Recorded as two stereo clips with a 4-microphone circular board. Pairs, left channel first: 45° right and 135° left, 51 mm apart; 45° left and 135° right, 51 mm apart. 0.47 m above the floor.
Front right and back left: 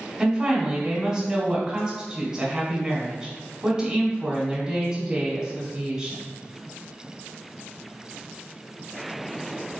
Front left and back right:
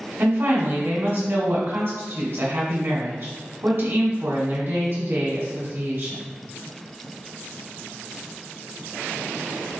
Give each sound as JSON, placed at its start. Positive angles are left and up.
{"t": 0.2, "sound": "a woman speaking", "azimuth_deg": -165, "distance_m": 1.3}